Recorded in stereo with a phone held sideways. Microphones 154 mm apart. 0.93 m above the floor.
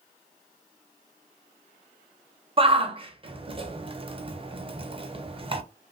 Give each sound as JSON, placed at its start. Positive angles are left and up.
{"t": 2.6, "sound": "a shout", "side_deg": -35, "distance_m": 0.6}